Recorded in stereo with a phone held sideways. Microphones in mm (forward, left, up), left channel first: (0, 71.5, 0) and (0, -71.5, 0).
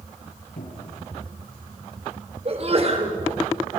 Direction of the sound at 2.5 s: 45° right (ahead or behind).